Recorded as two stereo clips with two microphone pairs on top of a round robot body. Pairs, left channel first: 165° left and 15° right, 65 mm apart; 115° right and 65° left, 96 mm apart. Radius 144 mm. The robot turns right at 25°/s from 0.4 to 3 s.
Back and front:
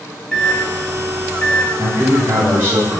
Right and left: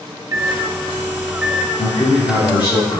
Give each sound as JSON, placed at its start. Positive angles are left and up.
{"t": 0.3, "sound": "a microwave", "azimuth_deg": 105, "distance_m": 1.1}
{"t": 1.8, "sound": "a man speaking", "azimuth_deg": -95, "distance_m": 1.6}